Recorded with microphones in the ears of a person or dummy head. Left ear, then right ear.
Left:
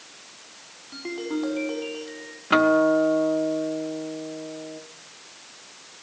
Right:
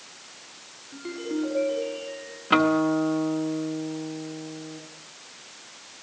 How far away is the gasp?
I don't hear a gasp.